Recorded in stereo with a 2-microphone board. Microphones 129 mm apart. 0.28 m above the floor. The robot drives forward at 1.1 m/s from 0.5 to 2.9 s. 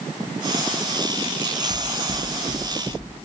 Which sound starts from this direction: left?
Knocking, at 1.7 s.